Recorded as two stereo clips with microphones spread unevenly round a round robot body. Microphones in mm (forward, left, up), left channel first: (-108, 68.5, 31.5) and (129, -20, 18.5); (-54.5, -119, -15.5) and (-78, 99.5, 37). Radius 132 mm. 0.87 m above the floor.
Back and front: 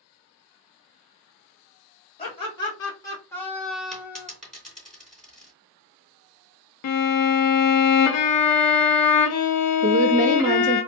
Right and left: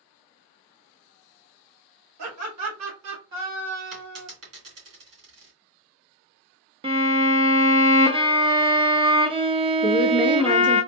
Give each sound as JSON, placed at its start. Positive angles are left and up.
{"t": 2.2, "sound": "laughter", "azimuth_deg": 90, "distance_m": 2.0}
{"t": 3.9, "sound": "a dropped coin", "azimuth_deg": 75, "distance_m": 3.0}
{"t": 6.8, "sound": "a violin", "azimuth_deg": 170, "distance_m": 0.8}
{"t": 9.8, "sound": "a woman speaking", "azimuth_deg": -35, "distance_m": 0.5}